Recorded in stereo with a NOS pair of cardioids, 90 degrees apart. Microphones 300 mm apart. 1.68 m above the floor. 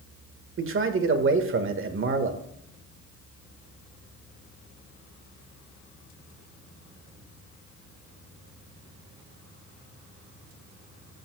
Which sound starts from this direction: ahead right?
A man speaking, at 0.6 s.